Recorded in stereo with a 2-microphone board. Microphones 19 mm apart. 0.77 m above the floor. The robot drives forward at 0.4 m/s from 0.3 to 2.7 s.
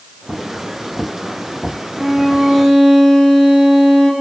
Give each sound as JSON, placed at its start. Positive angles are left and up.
{"t": 2.0, "sound": "a violin", "side_deg": -55, "distance_m": 7.5}